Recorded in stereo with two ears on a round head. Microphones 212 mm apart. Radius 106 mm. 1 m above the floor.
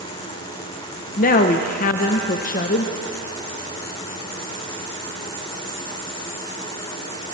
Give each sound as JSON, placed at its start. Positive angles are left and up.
{"t": 1.2, "sound": "a woman speaking", "side_deg": 35, "distance_m": 0.6}